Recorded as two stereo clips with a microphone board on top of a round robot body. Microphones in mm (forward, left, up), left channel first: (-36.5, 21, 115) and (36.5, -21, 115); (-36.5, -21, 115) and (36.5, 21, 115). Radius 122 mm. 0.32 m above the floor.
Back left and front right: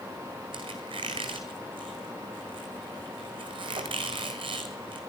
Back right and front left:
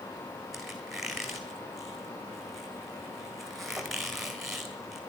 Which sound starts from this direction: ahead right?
A squeak, at 0.5 s.